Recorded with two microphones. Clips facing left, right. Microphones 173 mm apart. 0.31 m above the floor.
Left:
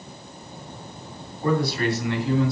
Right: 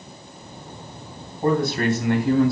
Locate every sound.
1.4 s a man speaking: 45° right (ahead or behind), 3 m; by 2.5 s 50° right (ahead or behind), 2.5 m